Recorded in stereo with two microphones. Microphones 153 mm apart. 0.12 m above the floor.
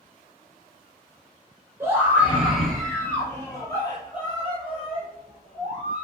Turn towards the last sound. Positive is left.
turn(degrees=55)  # may be behind; listen again after turning